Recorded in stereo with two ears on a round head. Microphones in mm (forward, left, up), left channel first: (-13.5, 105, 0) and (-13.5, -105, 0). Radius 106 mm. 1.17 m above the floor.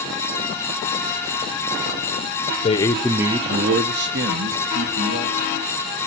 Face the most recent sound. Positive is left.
turn(degrees=-75)  # may be behind; listen again after turning